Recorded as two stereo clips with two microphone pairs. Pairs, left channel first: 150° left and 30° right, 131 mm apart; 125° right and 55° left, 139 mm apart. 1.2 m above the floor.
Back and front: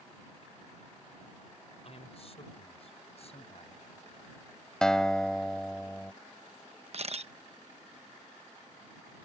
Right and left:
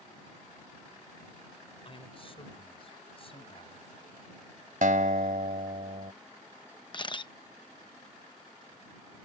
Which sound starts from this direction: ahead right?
A camera shutter, at 6.9 s.